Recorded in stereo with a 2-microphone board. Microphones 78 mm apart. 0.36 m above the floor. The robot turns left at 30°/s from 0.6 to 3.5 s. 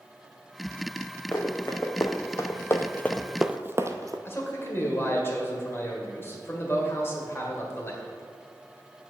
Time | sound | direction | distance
1.3 | running footsteps | 20° left (ahead or behind) | 1.7 m
4.2 | a man speaking | 35° left (ahead or behind) | 1.6 m